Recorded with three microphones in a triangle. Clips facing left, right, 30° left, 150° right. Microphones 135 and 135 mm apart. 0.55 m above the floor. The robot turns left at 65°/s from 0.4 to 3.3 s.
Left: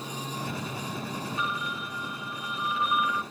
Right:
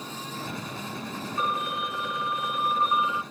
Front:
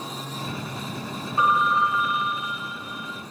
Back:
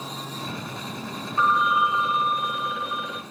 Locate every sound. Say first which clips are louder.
1.4 s a phone ringing: right 4 dB, even; 45° right, 0.7 m; by 3.2 s 165° right, 0.7 m